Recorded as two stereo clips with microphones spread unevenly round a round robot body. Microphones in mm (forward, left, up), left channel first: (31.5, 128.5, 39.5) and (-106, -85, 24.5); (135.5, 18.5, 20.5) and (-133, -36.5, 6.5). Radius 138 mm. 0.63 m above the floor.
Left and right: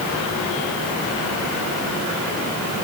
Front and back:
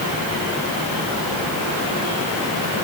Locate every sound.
Only background noise.